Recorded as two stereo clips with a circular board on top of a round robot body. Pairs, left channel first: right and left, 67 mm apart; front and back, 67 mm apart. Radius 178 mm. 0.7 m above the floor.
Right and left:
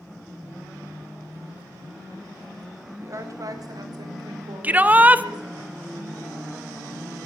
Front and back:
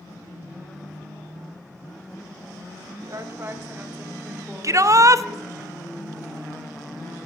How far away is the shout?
About 0.7 m.